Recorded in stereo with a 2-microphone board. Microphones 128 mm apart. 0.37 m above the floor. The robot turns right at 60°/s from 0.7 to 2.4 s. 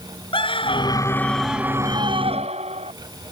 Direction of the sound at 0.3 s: 135° left.